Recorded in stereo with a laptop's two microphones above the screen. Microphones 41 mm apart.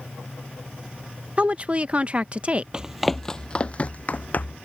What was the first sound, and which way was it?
A woman speaking, 30° right (ahead or behind).